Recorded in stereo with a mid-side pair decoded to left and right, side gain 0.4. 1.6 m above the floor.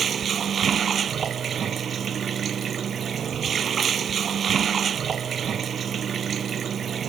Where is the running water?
60° right.